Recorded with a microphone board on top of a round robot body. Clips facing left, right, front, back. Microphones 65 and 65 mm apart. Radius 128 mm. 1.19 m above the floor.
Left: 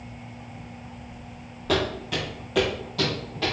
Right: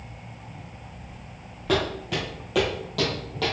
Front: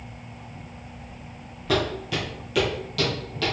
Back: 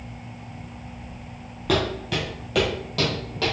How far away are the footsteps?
About 1.4 m.